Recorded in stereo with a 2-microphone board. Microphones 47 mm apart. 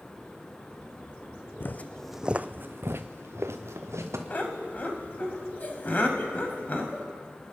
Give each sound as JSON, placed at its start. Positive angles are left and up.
{"t": 1.6, "sound": "footsteps", "side_deg": 45, "distance_m": 0.7}
{"t": 4.3, "sound": "laughter", "side_deg": 35, "distance_m": 1.8}